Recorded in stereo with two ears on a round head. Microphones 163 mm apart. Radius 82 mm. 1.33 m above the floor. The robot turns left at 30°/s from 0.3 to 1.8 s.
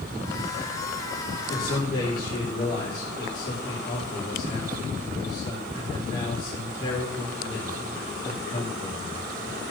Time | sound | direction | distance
1.5 | a man speaking | 30° left (ahead or behind) | 5 m